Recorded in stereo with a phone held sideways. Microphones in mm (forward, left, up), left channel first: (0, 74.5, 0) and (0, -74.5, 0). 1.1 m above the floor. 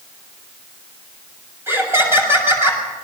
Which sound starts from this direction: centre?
Laughter, at 1.7 s.